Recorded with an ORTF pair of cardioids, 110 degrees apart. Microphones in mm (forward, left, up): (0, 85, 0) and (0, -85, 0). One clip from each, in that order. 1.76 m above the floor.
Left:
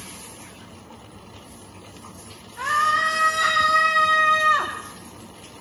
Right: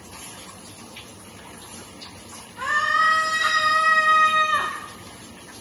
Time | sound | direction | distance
2.6 | a scream | 10° left | 3 m